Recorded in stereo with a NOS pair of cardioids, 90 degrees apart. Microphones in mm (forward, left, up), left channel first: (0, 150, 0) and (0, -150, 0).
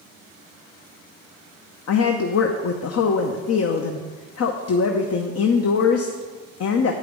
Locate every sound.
1.9 s a woman speaking: 50° left, 0.9 m